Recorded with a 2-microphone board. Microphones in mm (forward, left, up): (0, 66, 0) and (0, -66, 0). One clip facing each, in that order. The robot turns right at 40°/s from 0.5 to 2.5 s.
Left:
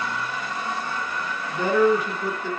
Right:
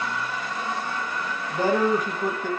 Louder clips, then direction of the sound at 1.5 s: Left 2 dB; 135° right.